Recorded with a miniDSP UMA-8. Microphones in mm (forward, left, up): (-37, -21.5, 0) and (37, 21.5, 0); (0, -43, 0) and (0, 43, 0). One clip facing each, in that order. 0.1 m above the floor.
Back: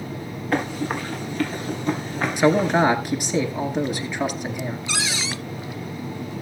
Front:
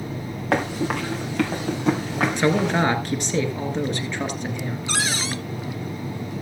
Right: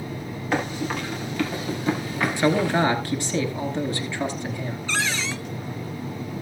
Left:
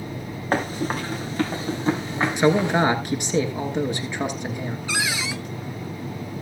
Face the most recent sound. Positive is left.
turn(degrees=15)